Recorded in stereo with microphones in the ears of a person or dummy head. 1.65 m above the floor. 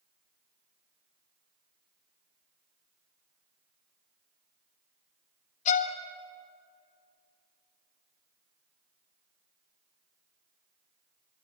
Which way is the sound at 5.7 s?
40° left (ahead or behind).